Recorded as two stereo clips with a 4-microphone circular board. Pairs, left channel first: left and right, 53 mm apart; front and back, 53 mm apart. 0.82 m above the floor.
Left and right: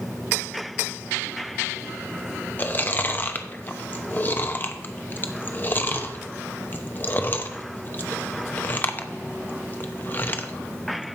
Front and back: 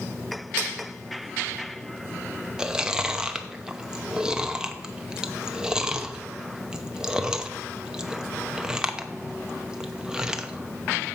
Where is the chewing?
110° left, 0.8 m.